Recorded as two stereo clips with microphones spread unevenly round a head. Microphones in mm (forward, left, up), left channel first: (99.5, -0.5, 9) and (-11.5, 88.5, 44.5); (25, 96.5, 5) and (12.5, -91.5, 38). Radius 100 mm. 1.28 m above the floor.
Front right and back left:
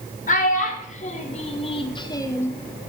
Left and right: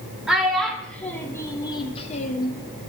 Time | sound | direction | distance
0.3 | a child speaking | 10° right | 2.5 m